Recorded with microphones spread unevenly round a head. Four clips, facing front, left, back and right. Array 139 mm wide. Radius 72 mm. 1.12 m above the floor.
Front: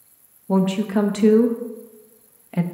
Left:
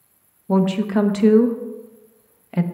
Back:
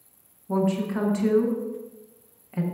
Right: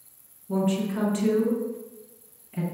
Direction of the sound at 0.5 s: 40° left.